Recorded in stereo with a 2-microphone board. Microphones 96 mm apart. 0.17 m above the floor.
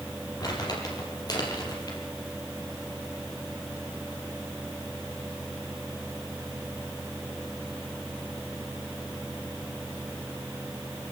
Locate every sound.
0.4 s crumpling: 40° left (ahead or behind), 5 m